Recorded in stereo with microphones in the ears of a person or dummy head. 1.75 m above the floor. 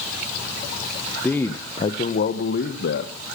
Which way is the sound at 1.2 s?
5° left (ahead or behind).